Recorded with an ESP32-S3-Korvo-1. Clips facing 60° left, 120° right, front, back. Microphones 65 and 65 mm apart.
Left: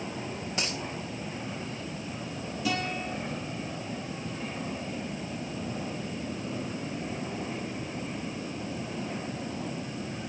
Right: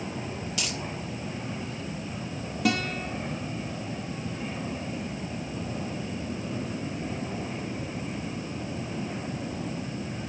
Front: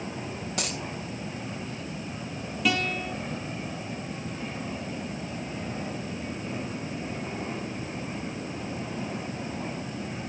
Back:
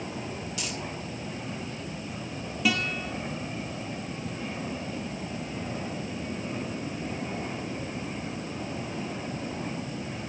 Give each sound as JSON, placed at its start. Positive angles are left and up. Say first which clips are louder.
{"t": 0.6, "sound": "a dropped coin", "louder": "left 2 dB, front 2 dB", "azimuth_deg": 10, "distance_m": 2.0}
{"t": 2.6, "sound": "a guitar", "louder": "right 4 dB, front 1 dB", "azimuth_deg": -90, "distance_m": 5.0}